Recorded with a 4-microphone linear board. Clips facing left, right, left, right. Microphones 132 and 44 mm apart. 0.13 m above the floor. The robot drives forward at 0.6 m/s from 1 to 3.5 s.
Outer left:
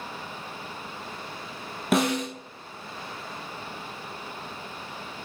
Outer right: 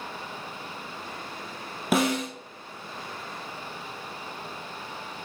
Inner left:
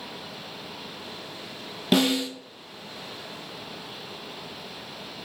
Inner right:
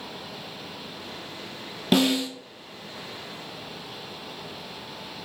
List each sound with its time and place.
1.9 s a snare drum: centre (ahead or behind), 0.8 m